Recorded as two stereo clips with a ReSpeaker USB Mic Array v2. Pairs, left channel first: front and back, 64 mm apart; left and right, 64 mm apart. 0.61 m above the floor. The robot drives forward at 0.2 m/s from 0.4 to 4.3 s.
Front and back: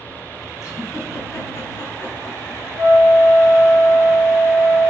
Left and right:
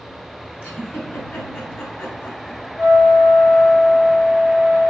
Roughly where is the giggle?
Ahead left.